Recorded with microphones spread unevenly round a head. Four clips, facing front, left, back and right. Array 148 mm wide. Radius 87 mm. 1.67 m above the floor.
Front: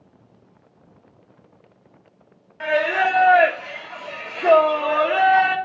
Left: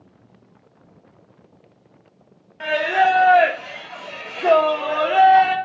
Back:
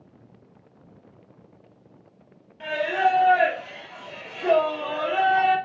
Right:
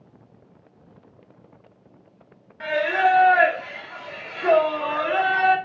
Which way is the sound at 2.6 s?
50° left.